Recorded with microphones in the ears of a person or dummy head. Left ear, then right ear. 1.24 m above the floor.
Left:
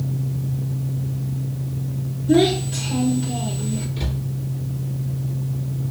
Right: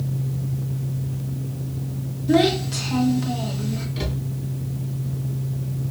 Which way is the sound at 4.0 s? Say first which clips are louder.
Right 1 dB; 65° right (ahead or behind).